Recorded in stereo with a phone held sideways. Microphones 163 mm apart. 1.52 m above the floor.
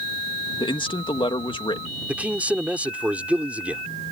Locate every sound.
0.6 s a man speaking: 30° left (ahead or behind)
2.1 s a man speaking: 10° right (ahead or behind)